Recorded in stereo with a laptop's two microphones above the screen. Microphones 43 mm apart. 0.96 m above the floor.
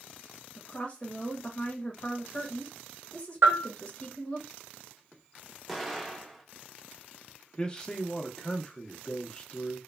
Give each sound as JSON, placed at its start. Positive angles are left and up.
{"t": 0.6, "sound": "a woman speaking", "side_deg": 20, "distance_m": 0.8}
{"t": 3.4, "sound": "a bell", "side_deg": -70, "distance_m": 0.9}
{"t": 5.7, "sound": "an explosion", "side_deg": 0, "distance_m": 0.6}
{"t": 7.6, "sound": "a man speaking", "side_deg": 25, "distance_m": 0.6}